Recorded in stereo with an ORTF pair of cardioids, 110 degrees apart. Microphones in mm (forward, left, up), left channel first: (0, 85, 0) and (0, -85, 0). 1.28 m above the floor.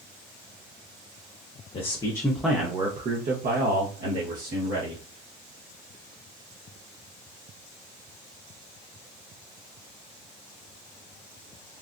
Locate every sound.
1.7 s a man speaking: 35° left, 0.8 m; by 5.0 s 80° right, 1.7 m